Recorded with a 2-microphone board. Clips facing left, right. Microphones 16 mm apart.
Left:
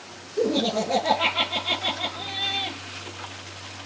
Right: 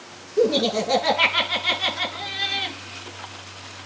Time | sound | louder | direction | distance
0.4 | laughter | right 3 dB | 60° right (ahead or behind) | 7.5 m